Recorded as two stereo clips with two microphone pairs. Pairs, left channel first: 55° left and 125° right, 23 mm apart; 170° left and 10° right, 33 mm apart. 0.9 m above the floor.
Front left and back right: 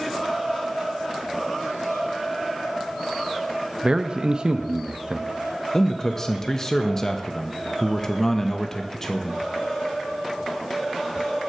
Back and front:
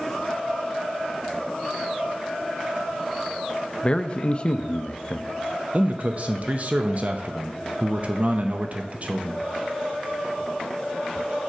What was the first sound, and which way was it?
A man speaking, 145° right.